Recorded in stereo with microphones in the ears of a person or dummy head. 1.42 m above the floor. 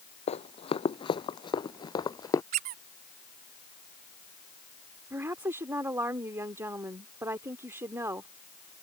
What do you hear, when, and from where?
0.3 s running footsteps: 35° left (ahead or behind); by 2.4 s 20° left (ahead or behind)
2.5 s a squeak: 45° right (ahead or behind)
5.1 s a woman speaking: 15° right (ahead or behind)